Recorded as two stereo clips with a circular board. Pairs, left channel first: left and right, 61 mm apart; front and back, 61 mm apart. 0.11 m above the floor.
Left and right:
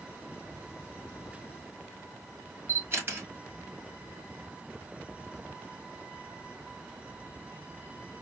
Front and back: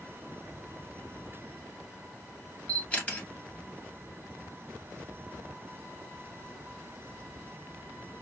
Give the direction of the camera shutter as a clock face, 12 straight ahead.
2 o'clock.